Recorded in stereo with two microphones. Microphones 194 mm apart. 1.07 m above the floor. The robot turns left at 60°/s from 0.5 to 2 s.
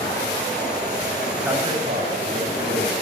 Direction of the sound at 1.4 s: 10° right.